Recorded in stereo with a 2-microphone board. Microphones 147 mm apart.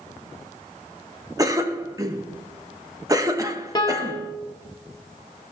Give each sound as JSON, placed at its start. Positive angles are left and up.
{"t": 1.4, "sound": "a cough", "side_deg": -25, "distance_m": 1.0}
{"t": 3.8, "sound": "a piano", "side_deg": 30, "distance_m": 1.4}